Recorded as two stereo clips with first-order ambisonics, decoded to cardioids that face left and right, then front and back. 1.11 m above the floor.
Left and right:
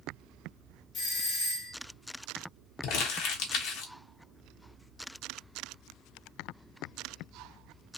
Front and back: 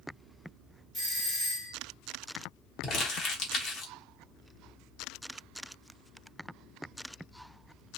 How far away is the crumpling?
About 1.0 m.